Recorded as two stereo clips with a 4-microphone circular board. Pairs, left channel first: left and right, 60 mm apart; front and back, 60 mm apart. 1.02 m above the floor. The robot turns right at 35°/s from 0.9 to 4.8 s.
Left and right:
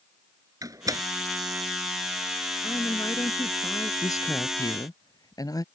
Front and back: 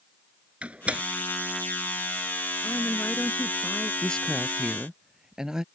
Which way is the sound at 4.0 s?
70° left.